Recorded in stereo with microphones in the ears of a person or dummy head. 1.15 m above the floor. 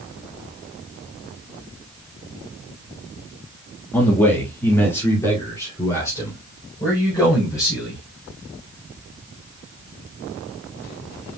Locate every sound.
3.9 s a man speaking: 15° left (ahead or behind), 1.6 m; by 8.0 s 20° left (ahead or behind), 5.5 m